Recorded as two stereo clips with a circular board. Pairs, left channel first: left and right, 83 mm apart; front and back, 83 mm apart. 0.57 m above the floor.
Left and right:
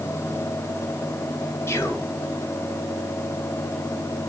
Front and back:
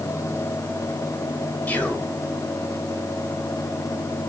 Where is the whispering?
55° left, 0.7 m.